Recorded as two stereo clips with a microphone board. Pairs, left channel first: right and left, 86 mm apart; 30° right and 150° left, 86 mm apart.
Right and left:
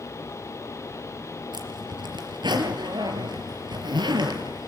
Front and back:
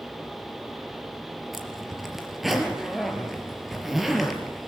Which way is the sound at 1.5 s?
65° left.